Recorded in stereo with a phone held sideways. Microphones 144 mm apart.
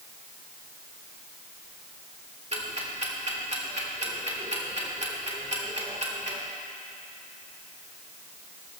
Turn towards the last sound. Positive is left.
turn(degrees=-50)  # may be behind; listen again after turning